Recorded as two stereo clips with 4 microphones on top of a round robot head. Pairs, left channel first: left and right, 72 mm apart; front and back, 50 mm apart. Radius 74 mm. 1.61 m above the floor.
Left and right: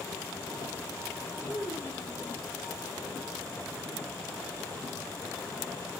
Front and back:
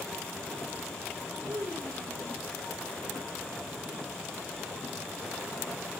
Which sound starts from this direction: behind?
A child speaking, at 1.4 s.